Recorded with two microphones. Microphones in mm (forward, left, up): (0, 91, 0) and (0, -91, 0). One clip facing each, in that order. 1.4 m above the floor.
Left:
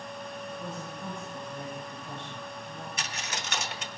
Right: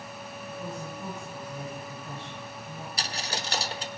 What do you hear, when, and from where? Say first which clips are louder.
0.5 s a woman speaking: right 1 dB; 5° right (ahead or behind), 8 m
3.0 s a dropped coin: right 3 dB; 35° right (ahead or behind), 0.8 m